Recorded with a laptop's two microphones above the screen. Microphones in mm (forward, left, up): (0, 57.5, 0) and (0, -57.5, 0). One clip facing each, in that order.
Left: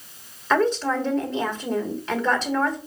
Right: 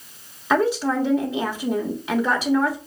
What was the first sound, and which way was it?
A woman speaking, 10° right (ahead or behind).